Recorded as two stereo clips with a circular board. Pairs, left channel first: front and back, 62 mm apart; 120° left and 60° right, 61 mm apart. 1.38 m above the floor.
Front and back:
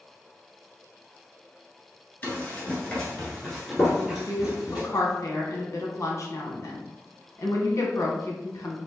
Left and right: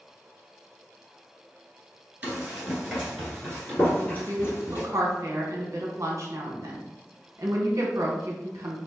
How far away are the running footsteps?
About 1.5 m.